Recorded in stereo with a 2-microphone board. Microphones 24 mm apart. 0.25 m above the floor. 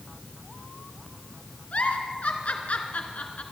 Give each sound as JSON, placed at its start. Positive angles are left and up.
{"t": 1.7, "sound": "a giggle", "side_deg": 70, "distance_m": 2.0}